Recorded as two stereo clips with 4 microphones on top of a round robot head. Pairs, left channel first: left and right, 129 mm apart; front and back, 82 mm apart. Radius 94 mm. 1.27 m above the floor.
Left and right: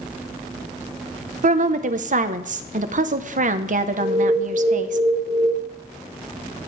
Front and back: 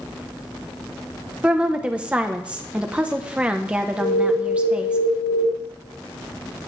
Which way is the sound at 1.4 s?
105° right.